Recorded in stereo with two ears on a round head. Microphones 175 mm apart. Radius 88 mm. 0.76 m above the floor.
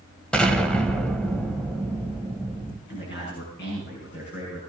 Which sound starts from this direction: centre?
An explosion, at 0.3 s.